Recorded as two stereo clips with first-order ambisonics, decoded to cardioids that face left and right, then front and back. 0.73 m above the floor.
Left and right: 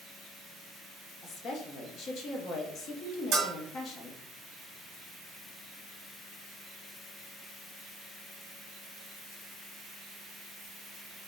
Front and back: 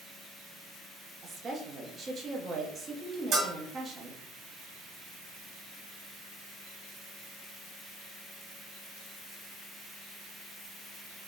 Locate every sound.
1.2 s a woman speaking: 125° left, 0.7 m
3.3 s a bell: 130° right, 1.2 m